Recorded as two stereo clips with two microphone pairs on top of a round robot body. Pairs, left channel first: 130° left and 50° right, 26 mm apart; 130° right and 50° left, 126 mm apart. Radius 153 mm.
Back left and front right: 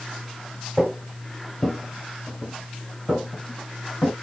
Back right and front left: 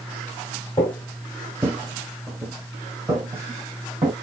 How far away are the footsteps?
About 1.1 m.